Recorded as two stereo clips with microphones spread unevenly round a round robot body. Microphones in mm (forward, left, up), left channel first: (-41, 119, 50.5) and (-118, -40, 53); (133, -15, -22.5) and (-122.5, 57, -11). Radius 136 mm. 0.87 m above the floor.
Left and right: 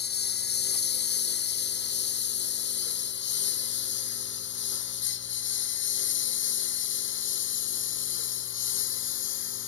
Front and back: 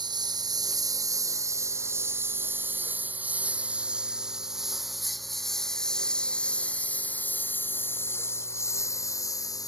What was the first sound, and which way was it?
A lawn mower, 90° left.